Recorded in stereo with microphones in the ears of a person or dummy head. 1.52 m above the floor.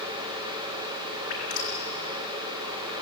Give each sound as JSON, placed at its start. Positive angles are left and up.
{"t": 1.3, "sound": "dripping", "side_deg": 45, "distance_m": 4.0}